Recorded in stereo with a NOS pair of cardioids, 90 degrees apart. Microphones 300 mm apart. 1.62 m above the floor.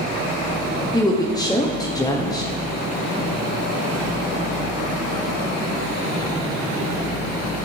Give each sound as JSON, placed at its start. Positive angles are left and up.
{"t": 0.9, "sound": "a woman speaking", "azimuth_deg": 15, "distance_m": 1.1}